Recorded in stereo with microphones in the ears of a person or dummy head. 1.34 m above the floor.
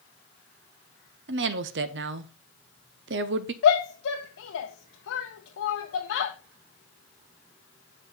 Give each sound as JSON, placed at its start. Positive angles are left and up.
{"t": 1.3, "sound": "a woman speaking", "side_deg": -55, "distance_m": 0.7}
{"t": 3.6, "sound": "a shout", "side_deg": 75, "distance_m": 0.9}